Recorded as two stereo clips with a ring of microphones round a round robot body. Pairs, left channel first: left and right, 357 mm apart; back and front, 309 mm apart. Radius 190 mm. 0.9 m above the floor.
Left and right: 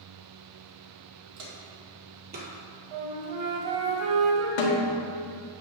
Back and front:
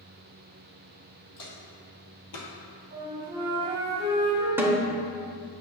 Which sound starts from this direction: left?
A snare drum, at 4.6 s.